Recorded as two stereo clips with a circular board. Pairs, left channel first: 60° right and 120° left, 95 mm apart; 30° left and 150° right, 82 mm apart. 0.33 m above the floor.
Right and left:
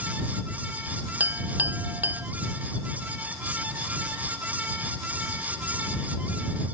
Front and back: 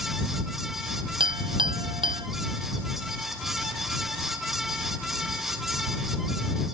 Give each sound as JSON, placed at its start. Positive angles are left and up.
{"t": 1.2, "sound": "a clink", "azimuth_deg": -170}